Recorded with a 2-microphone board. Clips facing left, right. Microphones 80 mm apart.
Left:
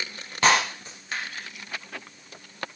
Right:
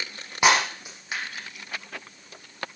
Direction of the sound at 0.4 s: 15° right (ahead or behind).